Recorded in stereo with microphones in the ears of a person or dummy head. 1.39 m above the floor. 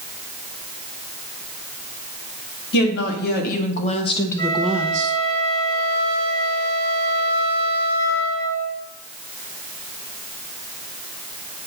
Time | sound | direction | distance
2.7 | a woman speaking | 65° left (ahead or behind) | 2 m
4.4 | a flute | 25° left (ahead or behind) | 2.5 m